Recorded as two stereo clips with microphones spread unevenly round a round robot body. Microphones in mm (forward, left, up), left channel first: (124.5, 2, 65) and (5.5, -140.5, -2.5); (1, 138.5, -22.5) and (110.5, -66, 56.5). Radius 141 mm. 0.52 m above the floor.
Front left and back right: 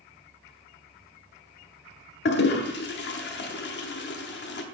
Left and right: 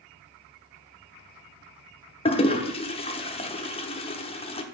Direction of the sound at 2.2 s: 85° left.